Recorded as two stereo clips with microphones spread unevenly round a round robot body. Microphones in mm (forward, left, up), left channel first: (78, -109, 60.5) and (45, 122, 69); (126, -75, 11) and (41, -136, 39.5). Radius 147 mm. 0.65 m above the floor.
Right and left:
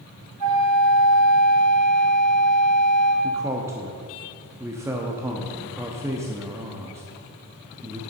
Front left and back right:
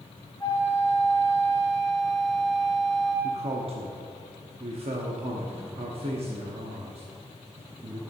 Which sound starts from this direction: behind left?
A flute, at 0.4 s.